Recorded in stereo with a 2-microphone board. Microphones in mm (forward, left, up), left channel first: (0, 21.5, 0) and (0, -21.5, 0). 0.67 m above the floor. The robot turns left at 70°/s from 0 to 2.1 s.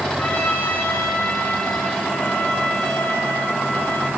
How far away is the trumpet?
About 1.9 m.